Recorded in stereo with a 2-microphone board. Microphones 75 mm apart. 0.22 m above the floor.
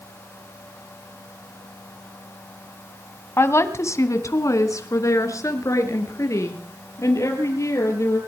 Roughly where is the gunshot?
I don't hear a gunshot.